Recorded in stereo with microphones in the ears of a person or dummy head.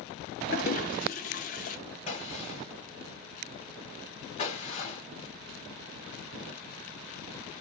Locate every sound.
0.5 s a toilet flushing: 40° left (ahead or behind), 0.9 m
2.1 s a gunshot: 35° left (ahead or behind), 1.8 m